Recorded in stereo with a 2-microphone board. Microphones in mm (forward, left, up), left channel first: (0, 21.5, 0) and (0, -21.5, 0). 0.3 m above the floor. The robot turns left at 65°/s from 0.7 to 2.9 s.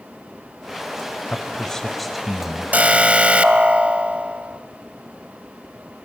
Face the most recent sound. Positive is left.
turn(degrees=-35)  # may be behind; listen again after turning